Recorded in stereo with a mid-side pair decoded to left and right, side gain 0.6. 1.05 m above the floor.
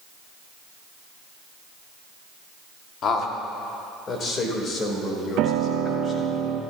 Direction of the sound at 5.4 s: 70° right.